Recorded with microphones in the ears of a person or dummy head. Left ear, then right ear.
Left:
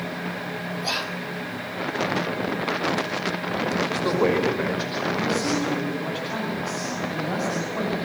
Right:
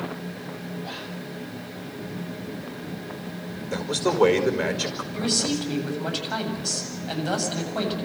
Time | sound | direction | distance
0.8 | whispering | 50° left (ahead or behind) | 1.4 m
3.7 | a man speaking | 45° right (ahead or behind) | 5 m
5.1 | a man speaking | 60° right (ahead or behind) | 8 m